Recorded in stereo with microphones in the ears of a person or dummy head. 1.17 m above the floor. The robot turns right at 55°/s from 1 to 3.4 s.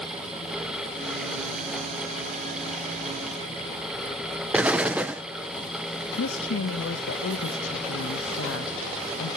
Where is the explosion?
5° right (ahead or behind), 0.7 m.